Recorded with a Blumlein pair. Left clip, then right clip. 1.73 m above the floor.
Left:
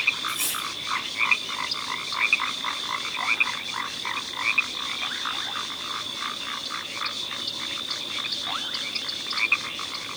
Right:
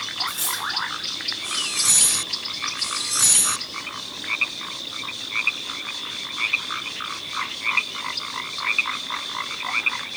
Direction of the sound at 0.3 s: 65° right.